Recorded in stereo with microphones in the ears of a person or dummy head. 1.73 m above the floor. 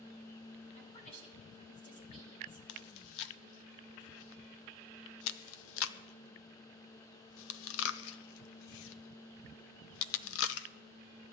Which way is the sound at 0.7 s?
35° left (ahead or behind).